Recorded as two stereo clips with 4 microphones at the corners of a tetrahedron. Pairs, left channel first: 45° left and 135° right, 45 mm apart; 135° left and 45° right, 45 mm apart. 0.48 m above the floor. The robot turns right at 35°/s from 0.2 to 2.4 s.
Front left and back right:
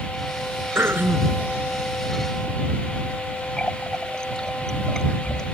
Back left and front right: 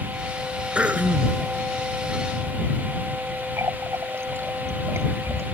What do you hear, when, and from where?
0.8 s throat clearing: 105° right; by 1.4 s 80° right
3.6 s a running tap: 30° right